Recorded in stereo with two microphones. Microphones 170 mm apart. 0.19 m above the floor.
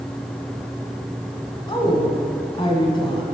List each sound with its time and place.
1.7 s a woman speaking: 30° left (ahead or behind), 1.2 m